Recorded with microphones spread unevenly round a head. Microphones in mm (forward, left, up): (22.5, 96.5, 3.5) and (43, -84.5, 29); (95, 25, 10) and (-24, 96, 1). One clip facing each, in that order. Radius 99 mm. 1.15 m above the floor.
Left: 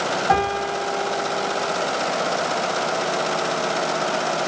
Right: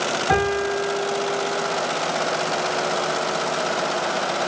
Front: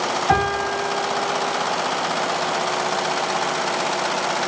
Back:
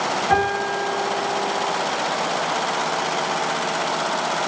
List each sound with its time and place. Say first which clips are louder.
0.3 s a piano: right 2 dB, even; 45° right, 2 m